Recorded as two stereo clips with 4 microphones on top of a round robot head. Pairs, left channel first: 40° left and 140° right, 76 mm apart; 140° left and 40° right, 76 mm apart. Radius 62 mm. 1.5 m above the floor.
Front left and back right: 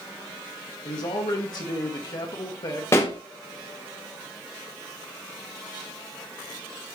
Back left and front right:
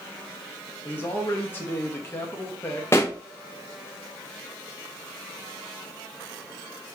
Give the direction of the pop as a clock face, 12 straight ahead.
9 o'clock.